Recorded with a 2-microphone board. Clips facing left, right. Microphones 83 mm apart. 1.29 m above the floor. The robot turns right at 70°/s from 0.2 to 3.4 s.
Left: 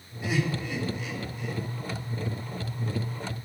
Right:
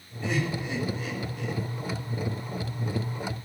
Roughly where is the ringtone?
I don't hear a ringtone.